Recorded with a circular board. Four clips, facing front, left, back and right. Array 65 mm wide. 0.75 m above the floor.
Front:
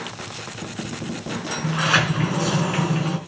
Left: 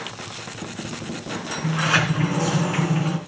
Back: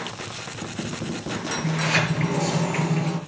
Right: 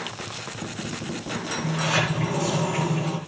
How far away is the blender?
No blender in this recording.